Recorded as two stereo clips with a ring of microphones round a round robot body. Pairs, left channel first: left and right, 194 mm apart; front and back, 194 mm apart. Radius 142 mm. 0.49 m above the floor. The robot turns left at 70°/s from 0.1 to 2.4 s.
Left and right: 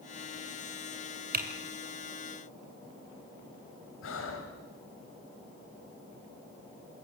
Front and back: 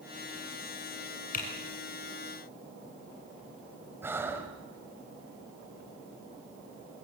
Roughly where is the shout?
No shout in this recording.